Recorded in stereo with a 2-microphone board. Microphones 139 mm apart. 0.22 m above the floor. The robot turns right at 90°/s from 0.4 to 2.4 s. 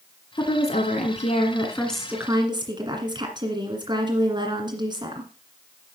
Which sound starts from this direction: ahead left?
A woman speaking, at 0.4 s.